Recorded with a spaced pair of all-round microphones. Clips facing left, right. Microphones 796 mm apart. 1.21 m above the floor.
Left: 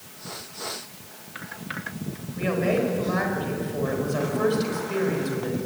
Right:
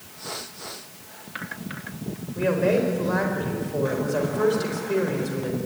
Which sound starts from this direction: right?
A woman speaking, at 2.4 s.